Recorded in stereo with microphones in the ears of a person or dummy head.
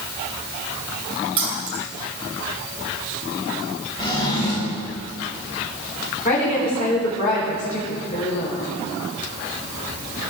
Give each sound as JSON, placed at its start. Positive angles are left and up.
{"t": 1.4, "sound": "keys jangling", "side_deg": -35, "distance_m": 2.0}
{"t": 4.0, "sound": "a drawer", "side_deg": 20, "distance_m": 3.5}
{"t": 6.2, "sound": "a woman speaking", "side_deg": 35, "distance_m": 4.0}